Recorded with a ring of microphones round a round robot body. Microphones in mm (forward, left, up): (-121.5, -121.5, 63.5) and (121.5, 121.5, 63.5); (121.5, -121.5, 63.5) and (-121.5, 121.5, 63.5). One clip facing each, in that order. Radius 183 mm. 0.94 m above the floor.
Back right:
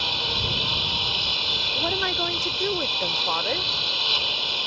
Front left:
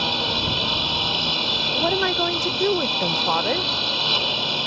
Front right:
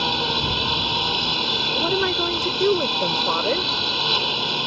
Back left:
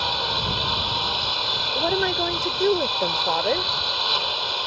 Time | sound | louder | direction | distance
0.0 | a lawn mower | front left 6 dB, front right 5 dB | 10° left | ?
1.8 | a woman speaking | front left 6 dB, front right 1 dB | 35° left | ?